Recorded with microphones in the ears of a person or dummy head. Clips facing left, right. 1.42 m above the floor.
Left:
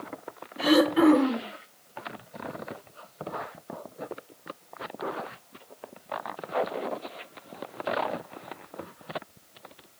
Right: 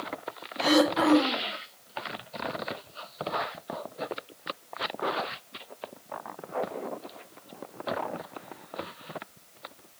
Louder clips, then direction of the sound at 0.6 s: Left 3 dB; 65° left (ahead or behind).